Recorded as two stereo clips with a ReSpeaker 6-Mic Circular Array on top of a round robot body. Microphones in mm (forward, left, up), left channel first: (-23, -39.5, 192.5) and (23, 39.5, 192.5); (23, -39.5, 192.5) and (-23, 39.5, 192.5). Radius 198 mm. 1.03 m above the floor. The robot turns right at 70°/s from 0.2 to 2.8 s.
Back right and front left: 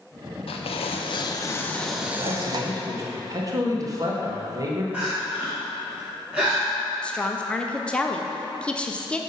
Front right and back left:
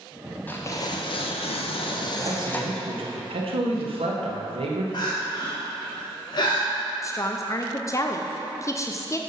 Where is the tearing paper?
135° right, 0.7 m; by 2.9 s 30° left, 0.7 m.